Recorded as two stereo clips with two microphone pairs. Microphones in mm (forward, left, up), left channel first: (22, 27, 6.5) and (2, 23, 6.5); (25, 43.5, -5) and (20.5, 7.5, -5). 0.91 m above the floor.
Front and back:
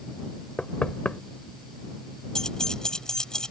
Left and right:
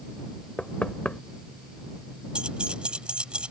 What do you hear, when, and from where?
0.6 s knocking: 25° left
2.4 s keys jangling: 40° right